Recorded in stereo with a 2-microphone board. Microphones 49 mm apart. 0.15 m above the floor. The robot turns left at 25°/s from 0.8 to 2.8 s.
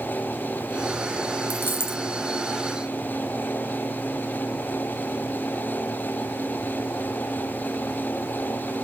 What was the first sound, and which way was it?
A dropped coin, 40° left (ahead or behind).